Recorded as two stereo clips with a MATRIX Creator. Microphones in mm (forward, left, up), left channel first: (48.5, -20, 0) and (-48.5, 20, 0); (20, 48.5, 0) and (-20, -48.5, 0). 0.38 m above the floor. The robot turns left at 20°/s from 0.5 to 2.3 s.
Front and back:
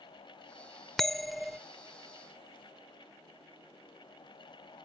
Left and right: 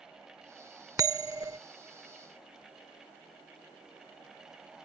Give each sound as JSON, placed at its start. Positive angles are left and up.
{"t": 1.0, "sound": "a bell", "azimuth_deg": -105}